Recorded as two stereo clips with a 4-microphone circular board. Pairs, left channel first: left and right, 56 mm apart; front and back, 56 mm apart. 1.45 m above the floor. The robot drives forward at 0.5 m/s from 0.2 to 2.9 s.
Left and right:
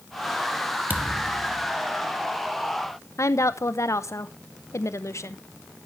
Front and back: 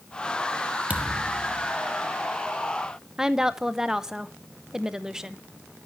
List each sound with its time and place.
0.9 s a thud: 125° right, 0.9 m; by 1.7 s 145° right, 1.2 m
3.2 s a woman speaking: 100° left, 0.7 m